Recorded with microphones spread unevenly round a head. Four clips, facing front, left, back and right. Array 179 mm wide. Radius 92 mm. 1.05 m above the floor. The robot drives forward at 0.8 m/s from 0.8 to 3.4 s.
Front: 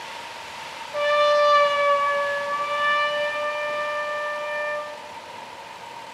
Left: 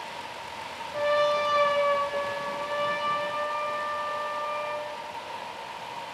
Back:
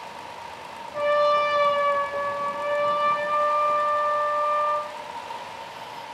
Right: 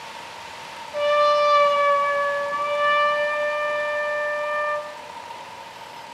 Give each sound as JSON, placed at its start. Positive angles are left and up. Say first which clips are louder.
{"t": 0.9, "sound": "a trumpet", "louder": "right 6 dB, front 2 dB", "azimuth_deg": -45, "distance_m": 3.0}